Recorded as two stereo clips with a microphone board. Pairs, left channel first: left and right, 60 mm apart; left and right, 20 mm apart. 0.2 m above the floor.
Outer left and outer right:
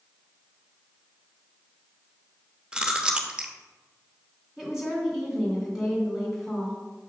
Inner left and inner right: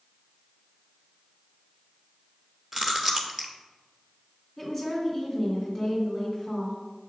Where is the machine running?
No machine running in this recording.